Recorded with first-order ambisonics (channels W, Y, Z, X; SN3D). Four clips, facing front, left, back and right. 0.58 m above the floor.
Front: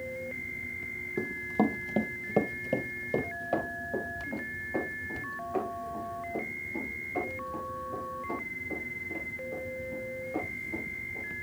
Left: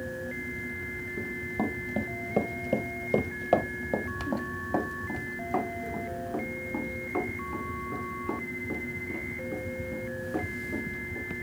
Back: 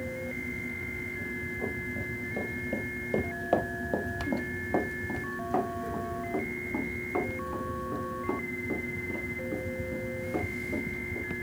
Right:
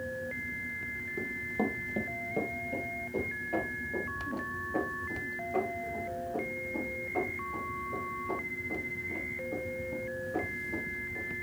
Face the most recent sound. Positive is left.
turn(degrees=150)